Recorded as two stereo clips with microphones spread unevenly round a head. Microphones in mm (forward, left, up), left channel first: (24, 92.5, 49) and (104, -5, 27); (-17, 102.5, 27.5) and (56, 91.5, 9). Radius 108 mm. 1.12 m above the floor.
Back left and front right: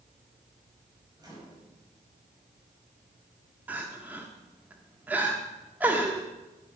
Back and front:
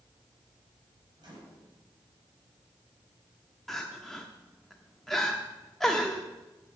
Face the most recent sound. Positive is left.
turn(degrees=-140)